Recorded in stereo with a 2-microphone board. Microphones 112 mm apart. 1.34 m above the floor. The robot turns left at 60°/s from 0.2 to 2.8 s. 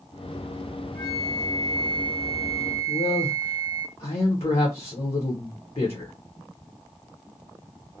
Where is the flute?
170° right, 0.9 m; by 3.9 s 80° left, 0.9 m.